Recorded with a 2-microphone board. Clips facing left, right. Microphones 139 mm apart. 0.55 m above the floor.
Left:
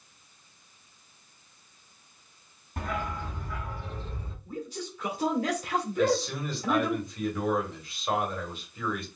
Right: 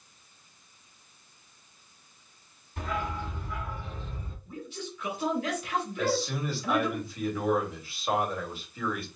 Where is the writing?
No writing in this recording.